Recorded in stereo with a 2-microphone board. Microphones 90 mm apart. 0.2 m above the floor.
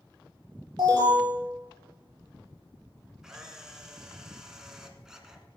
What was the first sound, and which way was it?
An alarm, 50° right (ahead or behind).